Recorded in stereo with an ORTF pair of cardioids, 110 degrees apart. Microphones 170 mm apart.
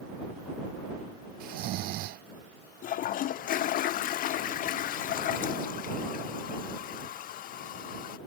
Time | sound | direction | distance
1.4 | snoring | 65° right | ?
2.8 | a toilet flushing | 55° left | ?